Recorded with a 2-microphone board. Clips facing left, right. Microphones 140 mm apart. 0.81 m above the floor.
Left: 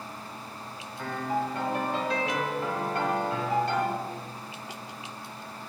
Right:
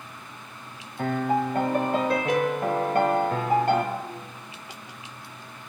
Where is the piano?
55° right (ahead or behind), 1.1 m.